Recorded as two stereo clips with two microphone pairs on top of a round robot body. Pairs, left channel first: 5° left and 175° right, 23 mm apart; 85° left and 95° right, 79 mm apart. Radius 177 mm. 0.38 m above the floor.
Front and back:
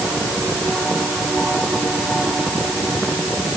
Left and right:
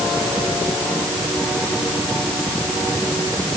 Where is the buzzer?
I don't hear a buzzer.